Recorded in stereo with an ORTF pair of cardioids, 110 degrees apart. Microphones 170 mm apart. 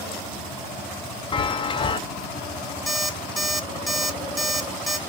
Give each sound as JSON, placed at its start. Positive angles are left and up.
{"t": 1.3, "sound": "a chime", "azimuth_deg": 30, "distance_m": 0.5}
{"t": 2.9, "sound": "an alarm clock", "azimuth_deg": 0, "distance_m": 1.0}